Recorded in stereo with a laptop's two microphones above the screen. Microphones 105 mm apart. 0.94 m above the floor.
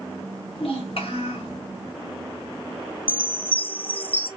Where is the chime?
15° left (ahead or behind), 1.0 m.